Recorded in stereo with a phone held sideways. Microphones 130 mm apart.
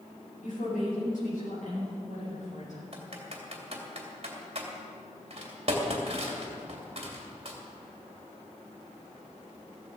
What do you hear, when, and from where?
0.4 s a woman speaking: 85° left, 6 m; by 2.8 s 75° left (ahead or behind), 9.5 m
2.9 s typing on a keyboard: 50° right (ahead or behind), 2.5 m